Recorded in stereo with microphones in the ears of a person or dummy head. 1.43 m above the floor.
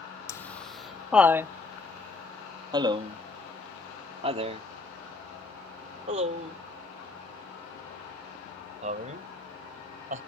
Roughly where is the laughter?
Centre.